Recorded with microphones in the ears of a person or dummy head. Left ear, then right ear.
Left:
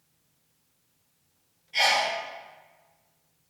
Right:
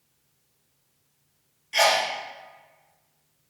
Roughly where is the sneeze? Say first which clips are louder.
Right 2 dB; right.